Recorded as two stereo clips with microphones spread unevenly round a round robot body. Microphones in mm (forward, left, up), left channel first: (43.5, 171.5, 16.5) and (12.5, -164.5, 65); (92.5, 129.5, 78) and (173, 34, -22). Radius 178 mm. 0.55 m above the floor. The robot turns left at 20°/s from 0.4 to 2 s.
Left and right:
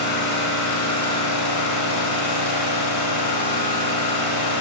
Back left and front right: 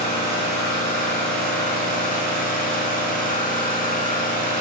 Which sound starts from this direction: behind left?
An engine running, at 0.0 s.